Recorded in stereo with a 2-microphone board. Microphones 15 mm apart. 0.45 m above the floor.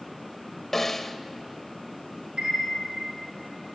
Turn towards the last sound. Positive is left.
turn(degrees=-70)  # may be behind; listen again after turning